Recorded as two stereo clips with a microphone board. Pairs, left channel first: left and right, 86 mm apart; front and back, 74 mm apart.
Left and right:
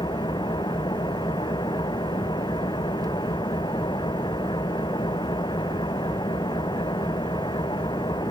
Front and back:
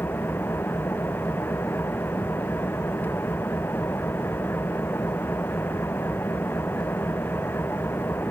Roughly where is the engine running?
Ahead left.